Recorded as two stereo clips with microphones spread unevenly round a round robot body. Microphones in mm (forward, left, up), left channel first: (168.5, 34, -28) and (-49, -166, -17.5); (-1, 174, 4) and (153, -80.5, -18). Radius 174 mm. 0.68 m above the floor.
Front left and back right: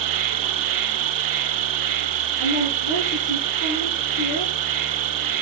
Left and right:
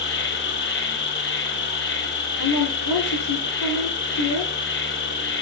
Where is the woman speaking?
95° left, 9.5 m.